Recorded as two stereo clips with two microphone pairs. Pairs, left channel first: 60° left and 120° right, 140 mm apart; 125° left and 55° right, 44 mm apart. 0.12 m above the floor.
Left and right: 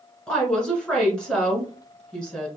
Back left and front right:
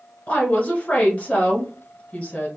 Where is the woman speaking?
145° left, 1.2 m.